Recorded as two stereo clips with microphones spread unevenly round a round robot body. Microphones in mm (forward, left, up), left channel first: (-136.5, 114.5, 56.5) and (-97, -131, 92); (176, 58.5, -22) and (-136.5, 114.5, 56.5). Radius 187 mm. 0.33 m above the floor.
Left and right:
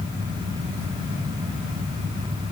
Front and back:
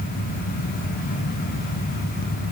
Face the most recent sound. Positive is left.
No sound to turn to.